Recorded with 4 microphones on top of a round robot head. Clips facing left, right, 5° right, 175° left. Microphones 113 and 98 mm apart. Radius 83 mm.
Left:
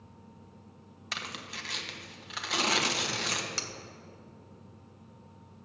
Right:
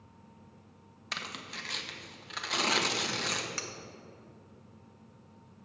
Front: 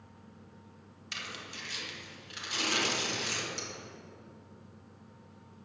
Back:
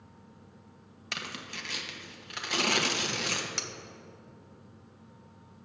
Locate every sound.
1.1 s tearing paper: 175° left, 1.4 m
3.6 s cutlery clinking: 150° left, 0.9 m